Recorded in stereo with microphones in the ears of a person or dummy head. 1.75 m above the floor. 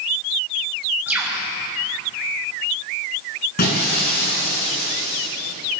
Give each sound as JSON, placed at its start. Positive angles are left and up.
{"t": 1.1, "sound": "a bird", "side_deg": -10, "distance_m": 5.0}
{"t": 3.6, "sound": "breaking glass", "side_deg": 50, "distance_m": 8.0}